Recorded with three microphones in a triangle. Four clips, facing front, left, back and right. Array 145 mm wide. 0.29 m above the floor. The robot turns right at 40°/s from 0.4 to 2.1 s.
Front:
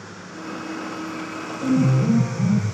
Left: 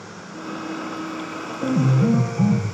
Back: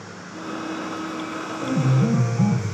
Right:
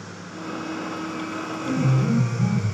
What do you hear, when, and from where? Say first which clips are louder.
1.6 s a piano: left 5 dB, front 3 dB; 85° left, 5.5 m; by 2.6 s 105° left, 5.5 m